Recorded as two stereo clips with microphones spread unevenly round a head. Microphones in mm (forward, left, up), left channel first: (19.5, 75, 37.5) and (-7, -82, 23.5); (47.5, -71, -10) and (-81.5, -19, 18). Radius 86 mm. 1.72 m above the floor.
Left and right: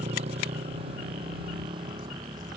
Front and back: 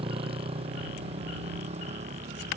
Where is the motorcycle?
155° right; by 2.6 s 165° right.